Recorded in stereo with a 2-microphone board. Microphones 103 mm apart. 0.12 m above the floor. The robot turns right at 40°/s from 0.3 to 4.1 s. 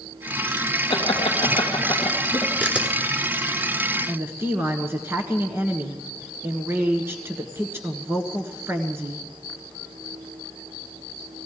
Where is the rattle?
I don't hear a rattle.